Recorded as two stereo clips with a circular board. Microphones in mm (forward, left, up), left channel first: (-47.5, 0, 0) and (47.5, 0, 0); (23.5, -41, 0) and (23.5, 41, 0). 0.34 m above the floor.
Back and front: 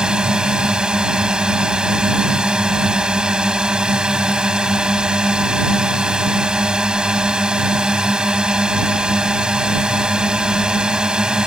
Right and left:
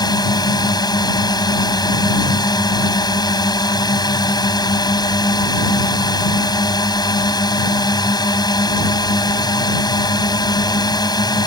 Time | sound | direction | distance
0.0 | a drone | 80° right | ?